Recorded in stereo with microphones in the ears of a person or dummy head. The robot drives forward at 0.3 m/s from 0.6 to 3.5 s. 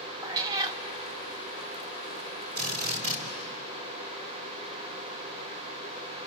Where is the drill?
50° right (ahead or behind), 3 m; by 3.2 s 45° right (ahead or behind), 3 m.